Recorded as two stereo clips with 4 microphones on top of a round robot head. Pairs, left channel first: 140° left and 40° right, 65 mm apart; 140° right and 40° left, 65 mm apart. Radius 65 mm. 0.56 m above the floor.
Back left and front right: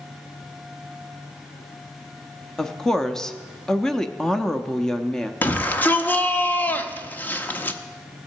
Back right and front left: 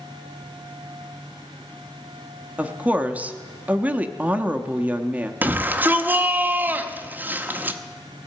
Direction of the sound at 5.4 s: 90° left.